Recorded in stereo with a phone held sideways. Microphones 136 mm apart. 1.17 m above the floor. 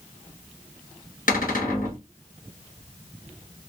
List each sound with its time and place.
1.3 s a cupboard door: 80° left, 1.3 m